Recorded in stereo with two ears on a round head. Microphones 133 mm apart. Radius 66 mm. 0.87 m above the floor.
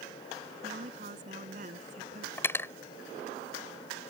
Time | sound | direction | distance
0.6 | a woman speaking | 55° right (ahead or behind) | ?
2.4 | cutlery clinking | 15° left (ahead or behind) | ?